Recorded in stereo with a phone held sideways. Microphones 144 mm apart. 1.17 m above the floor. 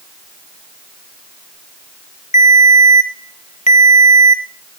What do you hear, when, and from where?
2.3 s a ringtone: 55° left (ahead or behind), 0.6 m